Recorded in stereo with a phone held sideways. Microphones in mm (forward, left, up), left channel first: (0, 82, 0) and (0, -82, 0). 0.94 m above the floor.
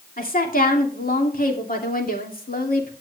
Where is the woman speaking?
60° left (ahead or behind), 2.5 m.